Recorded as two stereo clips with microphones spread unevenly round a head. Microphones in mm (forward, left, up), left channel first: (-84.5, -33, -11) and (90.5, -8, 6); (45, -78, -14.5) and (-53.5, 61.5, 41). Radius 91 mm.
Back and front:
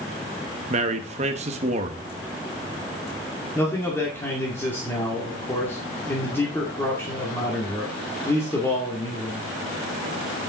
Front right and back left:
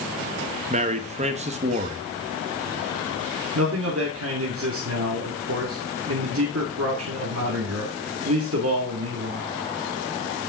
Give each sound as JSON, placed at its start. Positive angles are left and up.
{"t": 0.7, "sound": "a man speaking", "azimuth_deg": 65, "distance_m": 1.2}
{"t": 3.5, "sound": "a man speaking", "azimuth_deg": 110, "distance_m": 2.5}